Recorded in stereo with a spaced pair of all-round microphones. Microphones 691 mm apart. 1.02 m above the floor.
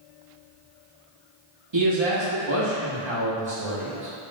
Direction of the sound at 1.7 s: 40° right (ahead or behind).